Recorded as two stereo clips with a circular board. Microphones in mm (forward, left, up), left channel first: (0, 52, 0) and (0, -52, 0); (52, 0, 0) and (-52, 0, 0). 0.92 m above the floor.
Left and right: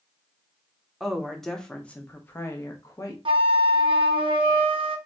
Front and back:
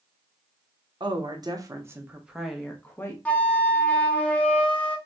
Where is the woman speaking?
175° right, 1.0 m; by 3.1 s 55° left, 0.9 m.